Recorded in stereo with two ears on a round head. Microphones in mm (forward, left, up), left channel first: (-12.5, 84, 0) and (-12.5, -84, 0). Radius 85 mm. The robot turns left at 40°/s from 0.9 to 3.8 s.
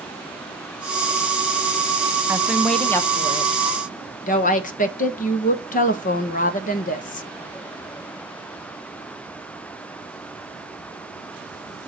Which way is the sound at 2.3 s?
165° right.